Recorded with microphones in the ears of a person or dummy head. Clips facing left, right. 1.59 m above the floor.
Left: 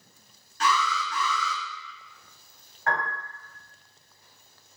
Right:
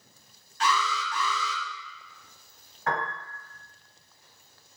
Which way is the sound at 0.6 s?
40° left (ahead or behind).